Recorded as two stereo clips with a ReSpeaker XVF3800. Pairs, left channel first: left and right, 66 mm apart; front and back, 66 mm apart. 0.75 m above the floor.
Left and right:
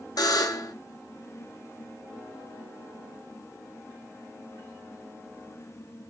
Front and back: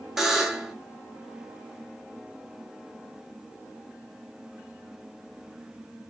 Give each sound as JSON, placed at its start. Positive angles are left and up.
{"t": 0.2, "sound": "a buzzer", "azimuth_deg": 95, "distance_m": 0.5}